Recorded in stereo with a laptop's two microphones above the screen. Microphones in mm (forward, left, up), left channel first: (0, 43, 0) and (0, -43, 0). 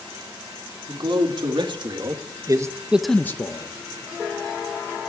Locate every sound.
0.9 s a man speaking: 75° right (ahead or behind), 2.5 m; by 3.7 s 50° left (ahead or behind), 1.0 m